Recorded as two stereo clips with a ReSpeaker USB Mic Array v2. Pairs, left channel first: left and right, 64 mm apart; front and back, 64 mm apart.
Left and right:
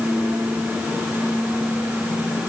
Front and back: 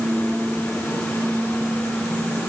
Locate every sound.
Only background noise.